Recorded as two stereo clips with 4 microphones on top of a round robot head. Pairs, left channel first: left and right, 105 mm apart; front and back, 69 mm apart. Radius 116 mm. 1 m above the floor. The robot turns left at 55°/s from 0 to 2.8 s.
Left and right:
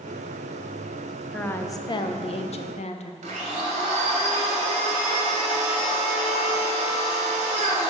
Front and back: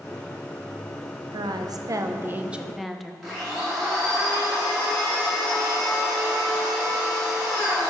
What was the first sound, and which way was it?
A woman speaking, 170° left.